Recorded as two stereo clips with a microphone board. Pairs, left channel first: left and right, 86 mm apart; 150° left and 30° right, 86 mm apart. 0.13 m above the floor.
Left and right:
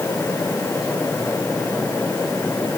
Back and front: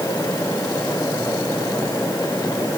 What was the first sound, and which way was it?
Only background noise.